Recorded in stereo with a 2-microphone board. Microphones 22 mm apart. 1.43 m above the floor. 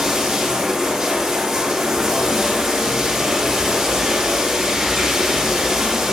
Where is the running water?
10° right (ahead or behind), 3 m.